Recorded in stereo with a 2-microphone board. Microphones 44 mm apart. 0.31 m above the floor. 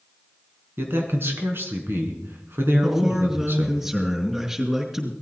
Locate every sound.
0.8 s a man speaking: 55° right (ahead or behind), 3.5 m
2.8 s a man speaking: 10° right (ahead or behind), 4 m